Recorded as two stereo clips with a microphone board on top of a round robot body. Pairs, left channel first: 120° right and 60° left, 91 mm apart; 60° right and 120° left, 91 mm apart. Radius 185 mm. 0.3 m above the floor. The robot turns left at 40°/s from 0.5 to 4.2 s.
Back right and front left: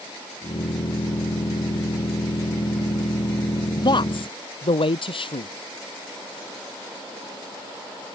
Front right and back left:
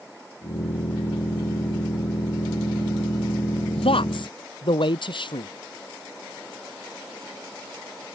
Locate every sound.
3.7 s a man speaking: 70° right; by 5.5 s 90° right